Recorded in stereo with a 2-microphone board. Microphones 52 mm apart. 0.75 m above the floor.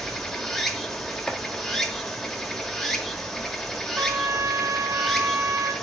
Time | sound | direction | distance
0.0 | running water | 5° left (ahead or behind) | 1.0 m
1.3 | chopping | 5° left (ahead or behind) | 1.1 m
4.0 | a trumpet | 65° right (ahead or behind) | 1.0 m